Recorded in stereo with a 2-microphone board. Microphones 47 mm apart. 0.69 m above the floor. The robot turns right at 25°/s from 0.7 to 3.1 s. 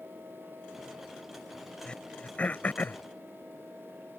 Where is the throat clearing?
20° left (ahead or behind); by 3.0 s 45° left (ahead or behind).